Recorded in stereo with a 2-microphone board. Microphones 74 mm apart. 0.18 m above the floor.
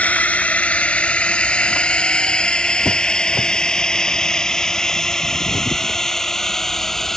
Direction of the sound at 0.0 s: 20° left (ahead or behind).